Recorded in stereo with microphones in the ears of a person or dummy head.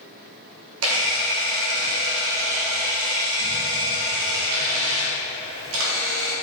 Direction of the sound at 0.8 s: 80° right.